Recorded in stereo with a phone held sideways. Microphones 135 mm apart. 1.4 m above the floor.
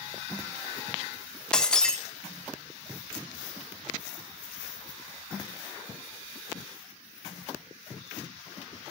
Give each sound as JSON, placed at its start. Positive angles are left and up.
{"t": 1.5, "sound": "breaking glass", "side_deg": 5, "distance_m": 0.6}